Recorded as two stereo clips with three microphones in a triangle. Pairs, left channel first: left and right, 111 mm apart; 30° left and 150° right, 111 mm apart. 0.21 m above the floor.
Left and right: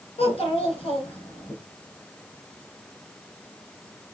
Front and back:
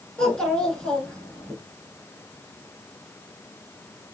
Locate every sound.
0.2 s a child speaking: 110° left, 1.8 m